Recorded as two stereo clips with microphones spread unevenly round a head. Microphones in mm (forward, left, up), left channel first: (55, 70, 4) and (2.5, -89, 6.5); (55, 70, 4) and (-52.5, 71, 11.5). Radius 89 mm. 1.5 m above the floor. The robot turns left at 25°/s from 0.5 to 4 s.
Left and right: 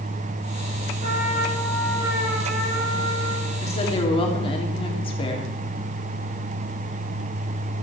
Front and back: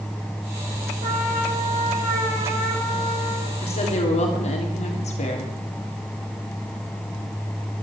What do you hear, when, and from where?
1.0 s a trumpet: 160° right, 7.5 m; by 3.5 s 140° left, 7.5 m
3.6 s a woman speaking: 20° left, 3.5 m; by 5.5 s 10° left, 3.5 m